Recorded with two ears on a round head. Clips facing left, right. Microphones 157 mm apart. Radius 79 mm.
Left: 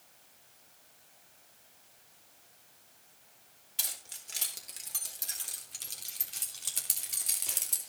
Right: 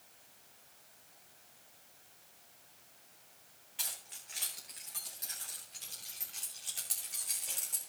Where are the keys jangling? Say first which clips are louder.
Left 1 dB; 55° left (ahead or behind), 4 m; by 7.9 s 85° left, 3 m.